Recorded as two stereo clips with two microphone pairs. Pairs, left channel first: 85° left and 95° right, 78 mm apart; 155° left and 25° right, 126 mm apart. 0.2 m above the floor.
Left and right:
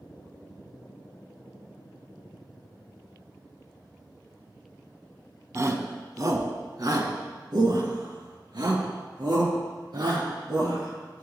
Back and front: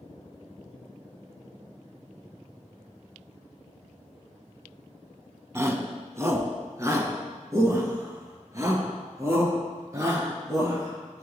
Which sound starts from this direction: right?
A shout, at 5.5 s.